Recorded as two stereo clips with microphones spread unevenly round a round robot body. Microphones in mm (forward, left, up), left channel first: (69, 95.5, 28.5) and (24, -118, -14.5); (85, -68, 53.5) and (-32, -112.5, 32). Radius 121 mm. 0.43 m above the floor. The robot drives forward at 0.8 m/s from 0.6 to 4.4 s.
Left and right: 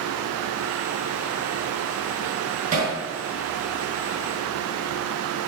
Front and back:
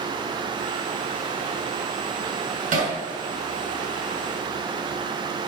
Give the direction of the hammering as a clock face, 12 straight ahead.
5 o'clock.